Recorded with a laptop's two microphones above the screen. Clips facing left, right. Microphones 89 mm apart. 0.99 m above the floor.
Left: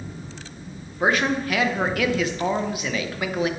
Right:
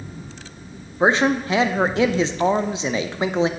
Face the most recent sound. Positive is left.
turn(degrees=-25)  # may be behind; listen again after turning